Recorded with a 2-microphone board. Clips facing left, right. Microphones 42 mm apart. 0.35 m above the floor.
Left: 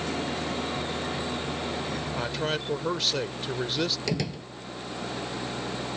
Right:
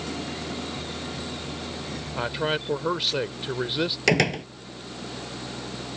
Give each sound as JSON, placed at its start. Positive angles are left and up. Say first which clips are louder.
{"t": 0.0, "sound": "an engine running", "louder": "left 2 dB", "side_deg": 25}
{"t": 2.1, "sound": "a man speaking", "louder": "right 5 dB", "side_deg": -20}
{"t": 4.1, "sound": "a door slam", "louder": "right 9 dB", "side_deg": -65}